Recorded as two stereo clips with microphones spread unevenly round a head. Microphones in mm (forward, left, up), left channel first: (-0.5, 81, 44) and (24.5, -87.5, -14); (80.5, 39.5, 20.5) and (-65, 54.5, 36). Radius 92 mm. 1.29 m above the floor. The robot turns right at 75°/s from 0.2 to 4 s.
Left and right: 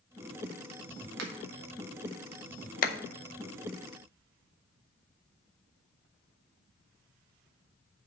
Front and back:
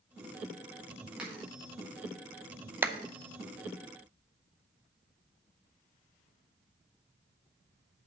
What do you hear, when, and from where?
1.2 s a finger snap: 105° right, 1.6 m; by 1.3 s 95° right, 1.6 m
2.8 s a clap: 100° left, 0.6 m; by 3.0 s 110° left, 0.6 m